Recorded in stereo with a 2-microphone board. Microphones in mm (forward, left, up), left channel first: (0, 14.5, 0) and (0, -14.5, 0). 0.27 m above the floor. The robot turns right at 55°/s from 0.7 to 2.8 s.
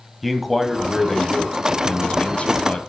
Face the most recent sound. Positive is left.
turn(degrees=120)